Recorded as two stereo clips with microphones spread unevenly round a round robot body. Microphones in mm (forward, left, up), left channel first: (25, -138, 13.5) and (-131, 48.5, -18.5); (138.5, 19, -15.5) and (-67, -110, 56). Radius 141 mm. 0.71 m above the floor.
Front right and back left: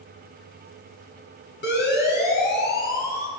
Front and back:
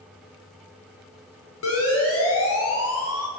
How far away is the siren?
About 8 m.